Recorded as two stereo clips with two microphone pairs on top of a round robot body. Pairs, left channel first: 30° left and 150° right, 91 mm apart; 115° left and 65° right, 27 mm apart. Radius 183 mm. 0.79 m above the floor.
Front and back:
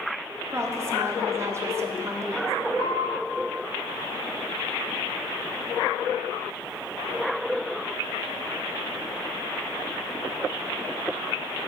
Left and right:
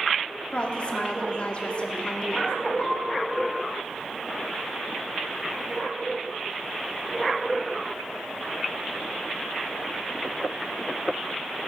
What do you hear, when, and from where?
0.5 s a woman speaking: 150° left, 0.9 m
2.8 s a piano: 60° left, 2.5 m